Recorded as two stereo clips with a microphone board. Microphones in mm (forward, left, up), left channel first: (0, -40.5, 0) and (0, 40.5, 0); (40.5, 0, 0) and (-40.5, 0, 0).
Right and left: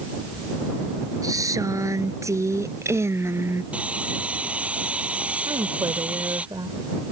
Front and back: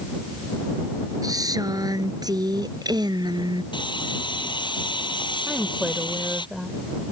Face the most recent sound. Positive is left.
turn(degrees=100)